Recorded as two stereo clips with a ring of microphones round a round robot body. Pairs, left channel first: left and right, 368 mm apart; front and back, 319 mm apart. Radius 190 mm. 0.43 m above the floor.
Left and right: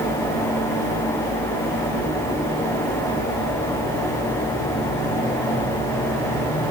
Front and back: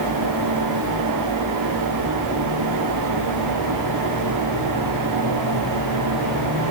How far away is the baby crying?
No baby crying in this recording.